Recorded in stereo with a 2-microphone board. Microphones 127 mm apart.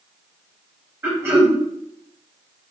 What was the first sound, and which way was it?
Throat clearing, 20° right (ahead or behind).